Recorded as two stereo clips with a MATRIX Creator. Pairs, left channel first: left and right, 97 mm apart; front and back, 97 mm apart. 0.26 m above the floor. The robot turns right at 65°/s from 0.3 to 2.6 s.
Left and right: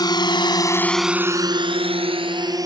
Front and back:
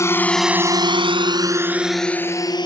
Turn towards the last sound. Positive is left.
turn(degrees=-40)